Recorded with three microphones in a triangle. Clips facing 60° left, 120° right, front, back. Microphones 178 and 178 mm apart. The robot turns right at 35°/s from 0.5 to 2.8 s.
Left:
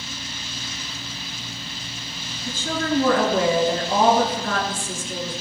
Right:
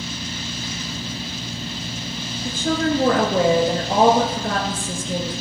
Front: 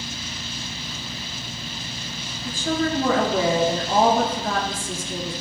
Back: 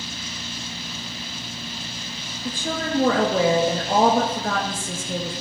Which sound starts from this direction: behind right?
A woman speaking, at 2.5 s.